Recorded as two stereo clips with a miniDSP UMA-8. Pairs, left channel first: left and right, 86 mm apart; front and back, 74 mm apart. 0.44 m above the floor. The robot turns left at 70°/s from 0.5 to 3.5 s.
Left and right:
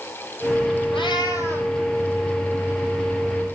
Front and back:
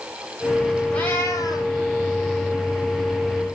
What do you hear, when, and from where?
0.9 s a cat meowing: 75° left, 3 m; by 1.7 s 15° left, 3 m